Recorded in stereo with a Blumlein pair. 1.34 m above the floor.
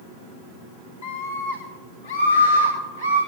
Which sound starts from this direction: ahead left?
A scream, at 1.0 s.